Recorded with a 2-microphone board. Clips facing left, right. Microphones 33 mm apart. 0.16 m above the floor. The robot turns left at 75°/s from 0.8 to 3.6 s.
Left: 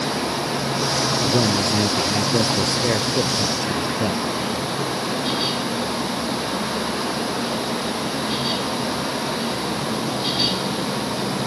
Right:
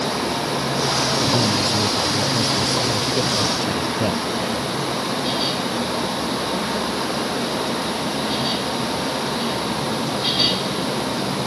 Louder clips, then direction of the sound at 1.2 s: Even; 165° left.